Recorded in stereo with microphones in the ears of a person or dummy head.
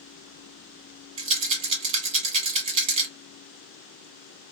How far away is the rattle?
About 1.4 m.